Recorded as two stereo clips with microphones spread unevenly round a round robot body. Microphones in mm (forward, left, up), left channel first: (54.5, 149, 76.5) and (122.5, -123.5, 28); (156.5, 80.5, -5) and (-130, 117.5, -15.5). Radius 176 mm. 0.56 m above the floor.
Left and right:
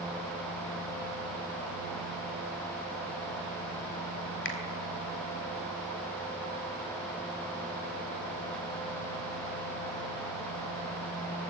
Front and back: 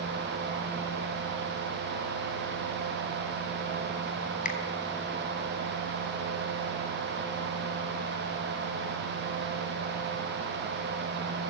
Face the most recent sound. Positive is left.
turn(degrees=55)